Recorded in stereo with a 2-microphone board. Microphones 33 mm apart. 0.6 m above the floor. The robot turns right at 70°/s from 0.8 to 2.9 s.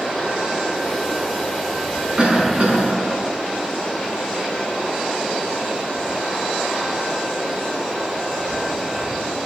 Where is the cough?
150° right, 5.5 m; by 3.2 s 100° right, 5.5 m.